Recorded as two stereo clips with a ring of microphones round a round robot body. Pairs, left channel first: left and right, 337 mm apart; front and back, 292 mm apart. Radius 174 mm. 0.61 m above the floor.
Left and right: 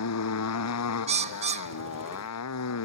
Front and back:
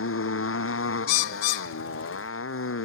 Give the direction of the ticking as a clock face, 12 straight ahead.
I don't hear ticking.